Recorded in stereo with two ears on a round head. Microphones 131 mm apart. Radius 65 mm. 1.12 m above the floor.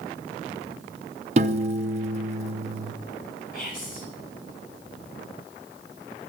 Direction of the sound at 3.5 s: 60° left (ahead or behind).